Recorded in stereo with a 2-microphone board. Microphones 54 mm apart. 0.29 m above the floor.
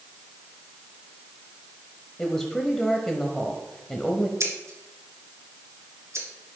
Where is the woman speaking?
10° left (ahead or behind), 1.2 m.